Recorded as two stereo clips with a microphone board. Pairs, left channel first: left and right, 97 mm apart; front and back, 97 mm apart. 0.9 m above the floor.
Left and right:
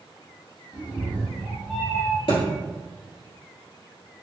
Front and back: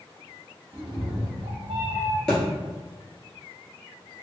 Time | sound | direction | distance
0.7 | a cat meowing | 135° left | 0.7 m
2.3 | a thud | 85° left | 1.7 m